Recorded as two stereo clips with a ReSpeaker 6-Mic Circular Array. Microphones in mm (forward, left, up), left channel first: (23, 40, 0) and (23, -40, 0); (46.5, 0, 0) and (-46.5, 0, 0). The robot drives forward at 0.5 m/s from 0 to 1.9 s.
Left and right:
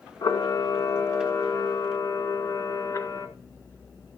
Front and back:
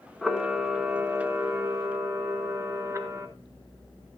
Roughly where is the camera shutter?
Left.